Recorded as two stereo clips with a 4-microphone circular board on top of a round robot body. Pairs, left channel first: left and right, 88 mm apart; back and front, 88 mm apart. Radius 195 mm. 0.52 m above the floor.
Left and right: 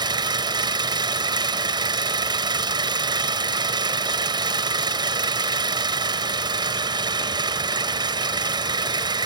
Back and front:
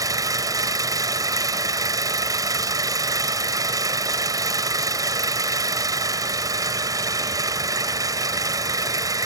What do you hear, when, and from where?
0.0 s an engine running: 50° right